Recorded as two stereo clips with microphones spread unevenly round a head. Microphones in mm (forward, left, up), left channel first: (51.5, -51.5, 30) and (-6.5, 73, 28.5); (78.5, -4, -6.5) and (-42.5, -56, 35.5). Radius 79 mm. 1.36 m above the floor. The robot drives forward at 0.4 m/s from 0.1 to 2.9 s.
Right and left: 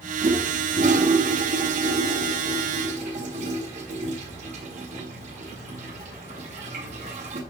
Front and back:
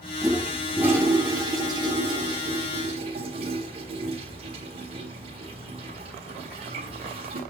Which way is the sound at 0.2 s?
135° left.